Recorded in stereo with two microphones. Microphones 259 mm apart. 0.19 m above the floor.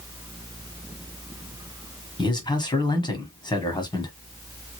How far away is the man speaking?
About 1.2 m.